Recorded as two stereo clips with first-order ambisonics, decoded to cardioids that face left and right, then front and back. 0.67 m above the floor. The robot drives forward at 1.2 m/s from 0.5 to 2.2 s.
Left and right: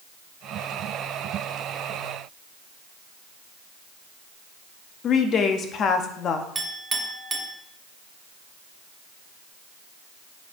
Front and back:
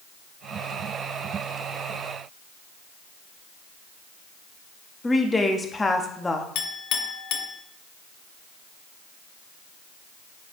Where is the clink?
15° right, 0.9 m.